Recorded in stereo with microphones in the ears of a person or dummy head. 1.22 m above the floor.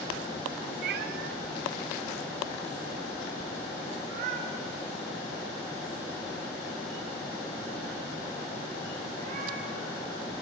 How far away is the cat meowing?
About 0.7 m.